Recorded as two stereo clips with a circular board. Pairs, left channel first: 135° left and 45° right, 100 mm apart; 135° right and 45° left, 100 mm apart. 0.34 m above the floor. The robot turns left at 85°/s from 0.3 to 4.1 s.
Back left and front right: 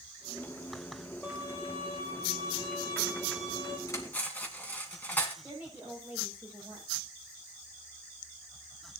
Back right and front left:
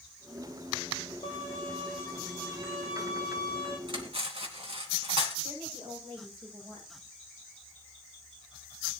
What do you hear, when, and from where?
1.2 s a violin: 125° right, 6 m; by 3.8 s 15° left, 6 m
3.9 s cutlery clinking: 80° left, 2.5 m; by 5.3 s 60° left, 2.5 m
5.4 s a woman speaking: 30° left, 8.5 m